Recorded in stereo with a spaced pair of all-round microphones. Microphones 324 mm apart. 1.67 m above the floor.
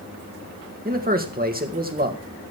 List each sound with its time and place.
0.8 s a man speaking: 25° right (ahead or behind), 1.9 m